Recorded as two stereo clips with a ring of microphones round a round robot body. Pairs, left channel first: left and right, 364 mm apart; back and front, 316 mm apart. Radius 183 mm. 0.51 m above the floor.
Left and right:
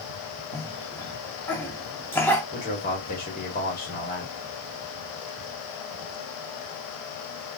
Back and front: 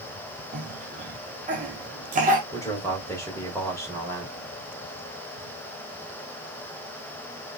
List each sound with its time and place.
0.5 s a cough: 15° left, 0.6 m
2.5 s a man speaking: 110° left, 1.3 m